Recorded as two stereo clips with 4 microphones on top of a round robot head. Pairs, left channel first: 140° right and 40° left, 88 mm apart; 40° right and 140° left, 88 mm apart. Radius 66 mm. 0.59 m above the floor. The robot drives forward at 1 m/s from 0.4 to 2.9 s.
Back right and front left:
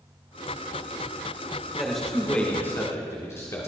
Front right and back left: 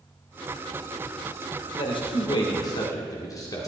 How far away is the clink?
I don't hear a clink.